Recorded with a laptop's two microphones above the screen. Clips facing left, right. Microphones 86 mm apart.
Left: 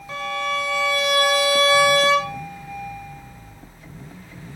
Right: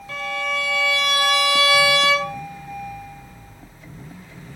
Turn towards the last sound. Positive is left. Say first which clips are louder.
# left 1 dB
turn(degrees=20)  # may be behind; listen again after turning